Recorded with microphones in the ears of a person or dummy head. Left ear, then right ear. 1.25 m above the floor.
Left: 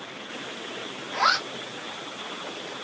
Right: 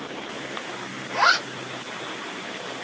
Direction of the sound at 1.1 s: 30° right (ahead or behind).